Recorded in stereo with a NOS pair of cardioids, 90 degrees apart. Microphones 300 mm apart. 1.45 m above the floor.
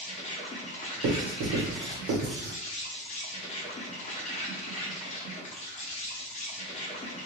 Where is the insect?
25° left, 0.7 m.